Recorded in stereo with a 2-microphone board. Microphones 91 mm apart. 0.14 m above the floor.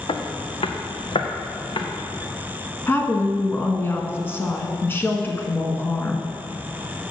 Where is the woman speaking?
25° left (ahead or behind), 1.4 m.